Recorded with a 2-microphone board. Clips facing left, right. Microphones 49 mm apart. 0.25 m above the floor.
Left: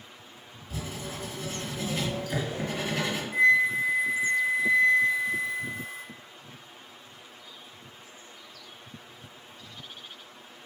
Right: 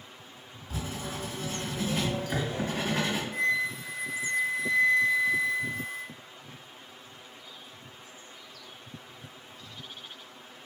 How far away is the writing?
About 1.9 m.